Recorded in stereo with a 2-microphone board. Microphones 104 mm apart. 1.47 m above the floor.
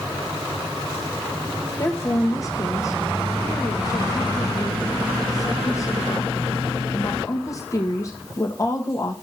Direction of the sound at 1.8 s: 30° left (ahead or behind).